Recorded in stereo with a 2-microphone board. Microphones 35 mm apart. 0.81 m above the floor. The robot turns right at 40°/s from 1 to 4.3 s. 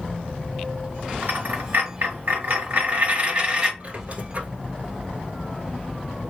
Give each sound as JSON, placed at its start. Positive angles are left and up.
{"t": 1.2, "sound": "a dropped coin", "azimuth_deg": -125, "distance_m": 1.4}
{"t": 3.8, "sound": "a squeak", "side_deg": -35, "distance_m": 1.0}